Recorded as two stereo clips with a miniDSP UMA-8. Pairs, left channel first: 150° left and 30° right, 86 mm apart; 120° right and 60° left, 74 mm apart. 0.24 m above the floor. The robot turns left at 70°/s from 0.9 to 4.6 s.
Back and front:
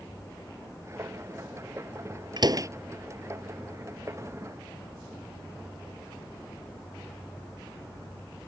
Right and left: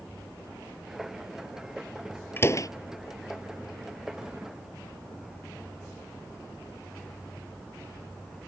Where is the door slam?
60° right; by 2.7 s 80° right.